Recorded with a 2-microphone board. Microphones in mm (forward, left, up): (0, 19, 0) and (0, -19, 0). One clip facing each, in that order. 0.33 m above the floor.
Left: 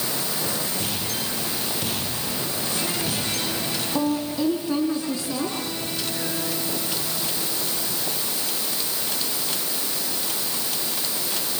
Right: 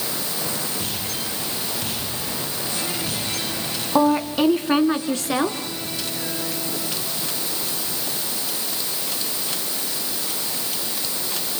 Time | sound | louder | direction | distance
4.0 | a woman speaking | right 7 dB | 70° right (ahead or behind) | 3 m